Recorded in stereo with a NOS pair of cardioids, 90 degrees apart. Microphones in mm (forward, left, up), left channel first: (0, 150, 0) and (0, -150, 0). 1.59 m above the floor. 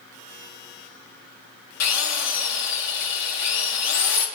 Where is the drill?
60° left, 3.5 m.